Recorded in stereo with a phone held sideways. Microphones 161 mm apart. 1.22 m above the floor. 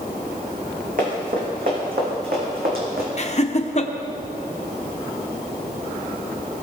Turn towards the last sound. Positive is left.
turn(degrees=45)  # may be behind; listen again after turning